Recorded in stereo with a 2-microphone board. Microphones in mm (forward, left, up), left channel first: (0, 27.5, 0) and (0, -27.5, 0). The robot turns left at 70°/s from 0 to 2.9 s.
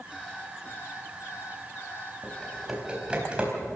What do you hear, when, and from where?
0.1 s an alarm clock: 175° right, 6 m; by 3.2 s 10° right, 6 m
2.2 s typing on a keyboard: 25° left (ahead or behind), 4 m; by 3.6 s 20° right (ahead or behind), 4 m